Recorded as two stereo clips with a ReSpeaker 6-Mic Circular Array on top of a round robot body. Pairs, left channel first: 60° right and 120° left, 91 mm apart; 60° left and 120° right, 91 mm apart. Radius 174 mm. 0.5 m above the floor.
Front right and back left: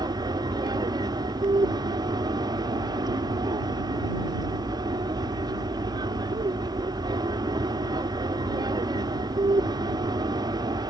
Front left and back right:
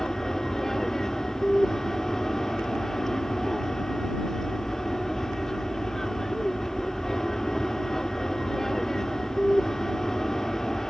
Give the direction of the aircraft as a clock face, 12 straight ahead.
7 o'clock.